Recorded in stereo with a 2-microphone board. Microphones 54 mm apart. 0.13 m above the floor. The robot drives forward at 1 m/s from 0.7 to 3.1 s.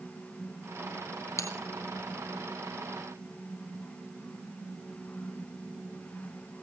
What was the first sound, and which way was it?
A bell, 65° left (ahead or behind).